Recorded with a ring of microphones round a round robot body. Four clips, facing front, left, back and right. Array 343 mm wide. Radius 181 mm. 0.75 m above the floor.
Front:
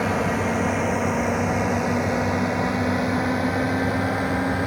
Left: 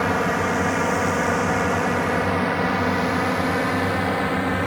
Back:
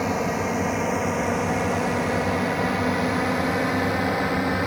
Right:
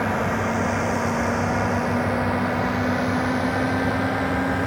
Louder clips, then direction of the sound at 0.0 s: Left 2 dB, front 2 dB; 80° left.